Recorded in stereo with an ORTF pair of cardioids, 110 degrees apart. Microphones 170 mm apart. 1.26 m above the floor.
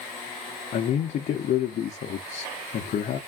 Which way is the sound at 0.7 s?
50° left.